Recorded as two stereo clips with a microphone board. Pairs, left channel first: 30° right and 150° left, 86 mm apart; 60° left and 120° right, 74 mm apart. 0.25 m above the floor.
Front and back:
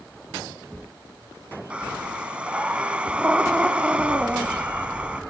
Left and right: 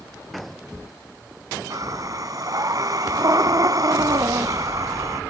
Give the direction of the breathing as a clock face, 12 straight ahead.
5 o'clock.